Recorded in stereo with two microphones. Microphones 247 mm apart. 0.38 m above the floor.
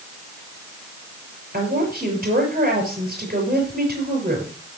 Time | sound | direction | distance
1.5 | a woman speaking | 40° right (ahead or behind) | 6 m